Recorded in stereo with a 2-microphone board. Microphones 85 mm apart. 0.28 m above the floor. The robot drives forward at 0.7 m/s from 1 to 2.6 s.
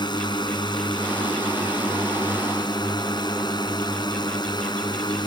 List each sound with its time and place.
0.0 s a drone: 60° left (ahead or behind)